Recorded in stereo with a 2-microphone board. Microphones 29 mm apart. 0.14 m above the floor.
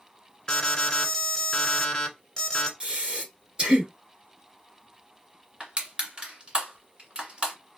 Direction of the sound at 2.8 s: 30° right (ahead or behind).